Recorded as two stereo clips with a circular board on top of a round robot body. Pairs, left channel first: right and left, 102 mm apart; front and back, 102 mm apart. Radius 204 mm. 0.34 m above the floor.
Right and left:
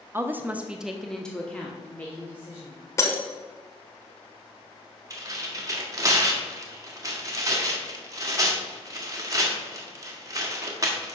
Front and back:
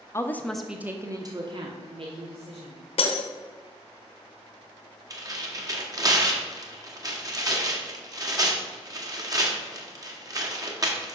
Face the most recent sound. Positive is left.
turn(degrees=135)